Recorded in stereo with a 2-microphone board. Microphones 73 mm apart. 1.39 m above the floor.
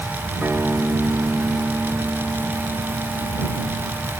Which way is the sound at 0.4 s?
30° right (ahead or behind).